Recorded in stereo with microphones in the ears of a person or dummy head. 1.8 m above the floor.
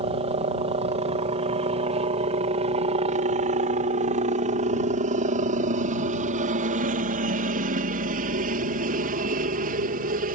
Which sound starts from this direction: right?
A helicopter, at 0.0 s.